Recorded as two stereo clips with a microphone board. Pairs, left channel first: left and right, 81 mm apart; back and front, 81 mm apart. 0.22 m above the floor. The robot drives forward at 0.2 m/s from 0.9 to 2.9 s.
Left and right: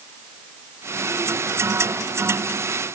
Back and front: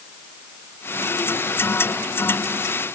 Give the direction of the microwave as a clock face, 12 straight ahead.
I don't hear a microwave.